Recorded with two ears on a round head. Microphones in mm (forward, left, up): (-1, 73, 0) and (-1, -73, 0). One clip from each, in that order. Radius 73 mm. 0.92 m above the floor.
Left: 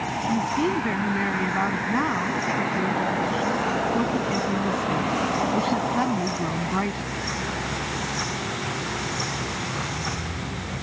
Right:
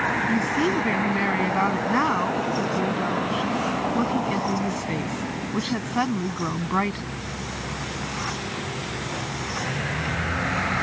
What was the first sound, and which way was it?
A woman speaking, 20° right (ahead or behind).